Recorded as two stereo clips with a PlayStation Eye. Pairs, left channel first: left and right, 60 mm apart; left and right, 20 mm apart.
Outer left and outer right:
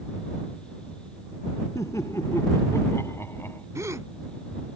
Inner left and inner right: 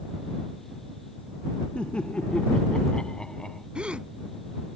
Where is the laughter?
60° left (ahead or behind); by 3.6 s 40° left (ahead or behind).